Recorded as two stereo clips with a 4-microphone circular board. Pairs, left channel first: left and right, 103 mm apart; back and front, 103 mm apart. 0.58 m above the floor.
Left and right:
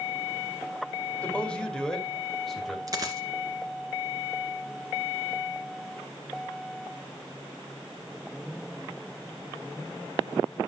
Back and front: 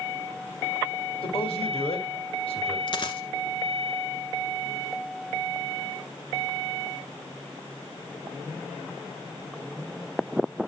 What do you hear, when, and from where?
1.2 s a man speaking: 165° left, 1.9 m; by 2.8 s straight behind, 2.5 m
2.9 s a dropped coin: 145° right, 1.7 m